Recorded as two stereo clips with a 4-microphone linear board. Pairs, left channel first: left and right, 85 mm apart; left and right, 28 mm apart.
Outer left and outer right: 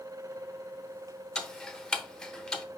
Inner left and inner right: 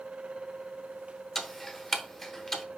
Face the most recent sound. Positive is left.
turn(degrees=10)  # may be behind; listen again after turning